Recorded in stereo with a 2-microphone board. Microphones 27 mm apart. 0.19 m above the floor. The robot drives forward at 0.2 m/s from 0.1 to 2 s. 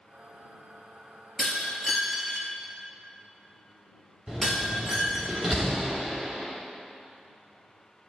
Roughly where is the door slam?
Centre.